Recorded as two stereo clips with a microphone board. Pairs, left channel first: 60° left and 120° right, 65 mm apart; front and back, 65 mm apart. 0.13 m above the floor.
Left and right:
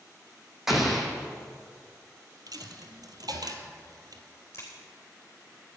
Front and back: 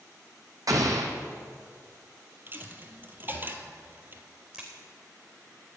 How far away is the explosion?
About 1.7 m.